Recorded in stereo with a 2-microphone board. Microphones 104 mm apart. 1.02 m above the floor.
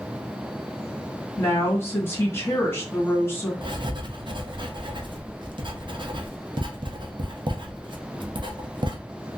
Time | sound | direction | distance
1.4 | a woman speaking | 25° left (ahead or behind) | 1.3 m
3.6 | writing | 50° right (ahead or behind) | 0.6 m